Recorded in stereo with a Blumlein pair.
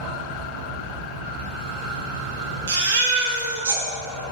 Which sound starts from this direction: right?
A fan, at 0.0 s.